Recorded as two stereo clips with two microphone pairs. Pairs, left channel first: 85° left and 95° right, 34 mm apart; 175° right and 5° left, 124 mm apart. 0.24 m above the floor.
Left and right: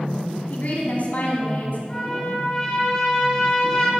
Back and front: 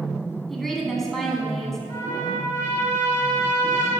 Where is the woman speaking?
100° left, 1.7 m.